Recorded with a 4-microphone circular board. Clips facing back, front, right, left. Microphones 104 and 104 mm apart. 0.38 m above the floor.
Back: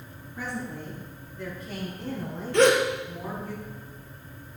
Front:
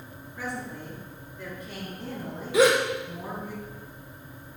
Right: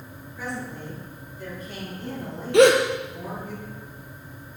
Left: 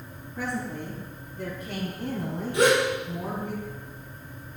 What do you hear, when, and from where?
0.4 s a woman speaking: 105° left, 4.5 m; by 3.5 s 80° left, 4.5 m
2.5 s a gasp: 85° right, 1.7 m